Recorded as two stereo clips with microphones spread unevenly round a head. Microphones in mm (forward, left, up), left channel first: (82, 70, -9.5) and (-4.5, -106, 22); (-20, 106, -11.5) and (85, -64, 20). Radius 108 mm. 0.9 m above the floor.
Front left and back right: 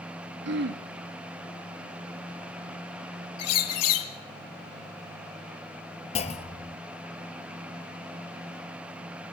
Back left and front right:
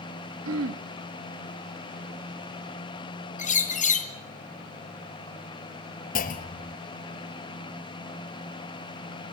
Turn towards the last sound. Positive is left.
turn(degrees=105)